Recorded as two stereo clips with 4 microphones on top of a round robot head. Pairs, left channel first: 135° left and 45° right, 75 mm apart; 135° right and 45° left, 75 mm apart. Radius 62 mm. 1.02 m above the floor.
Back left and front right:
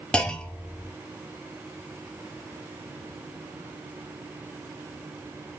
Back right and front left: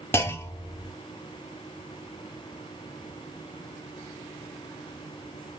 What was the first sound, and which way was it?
A clunk, 155° right.